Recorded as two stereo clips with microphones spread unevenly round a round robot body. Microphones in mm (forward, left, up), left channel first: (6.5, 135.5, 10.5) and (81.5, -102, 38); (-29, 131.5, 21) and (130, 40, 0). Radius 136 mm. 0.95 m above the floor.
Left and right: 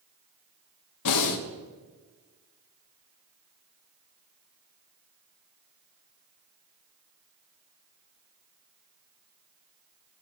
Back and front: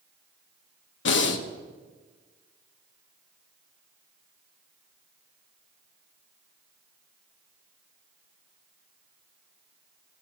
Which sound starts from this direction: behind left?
Breathing, at 1.1 s.